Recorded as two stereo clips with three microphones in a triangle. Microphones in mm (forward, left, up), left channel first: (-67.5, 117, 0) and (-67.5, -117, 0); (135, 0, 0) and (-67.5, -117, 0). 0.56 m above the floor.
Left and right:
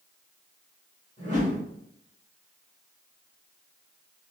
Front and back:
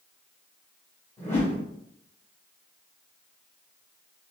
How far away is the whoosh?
About 1.7 m.